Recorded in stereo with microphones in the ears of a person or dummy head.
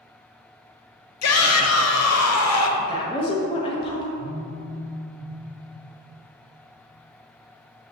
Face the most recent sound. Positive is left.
turn(degrees=80)